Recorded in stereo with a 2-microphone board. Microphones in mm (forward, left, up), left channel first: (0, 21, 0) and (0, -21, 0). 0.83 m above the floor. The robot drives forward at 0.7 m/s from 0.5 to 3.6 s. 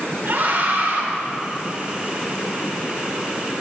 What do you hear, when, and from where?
0.2 s a scream: 50° right (ahead or behind), 3 m; by 1.0 s 55° right (ahead or behind), 3 m